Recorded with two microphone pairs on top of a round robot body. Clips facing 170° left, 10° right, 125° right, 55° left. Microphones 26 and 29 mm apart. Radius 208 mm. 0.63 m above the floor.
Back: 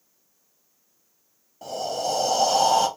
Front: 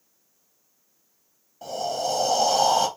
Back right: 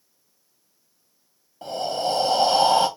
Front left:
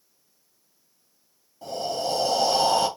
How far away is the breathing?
About 1.5 m.